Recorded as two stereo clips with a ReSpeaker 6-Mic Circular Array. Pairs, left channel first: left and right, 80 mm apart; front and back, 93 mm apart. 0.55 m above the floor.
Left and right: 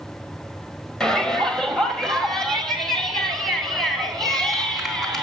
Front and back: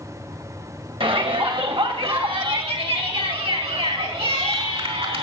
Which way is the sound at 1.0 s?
175° left.